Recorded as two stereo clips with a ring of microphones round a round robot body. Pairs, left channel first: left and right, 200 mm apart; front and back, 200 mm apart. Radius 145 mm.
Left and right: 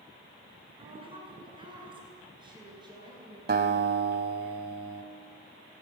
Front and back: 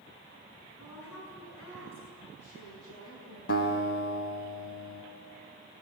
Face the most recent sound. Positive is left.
turn(degrees=-50)